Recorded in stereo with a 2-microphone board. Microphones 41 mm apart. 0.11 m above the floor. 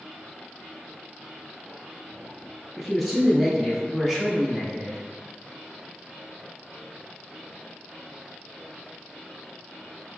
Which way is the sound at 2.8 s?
Centre (ahead or behind).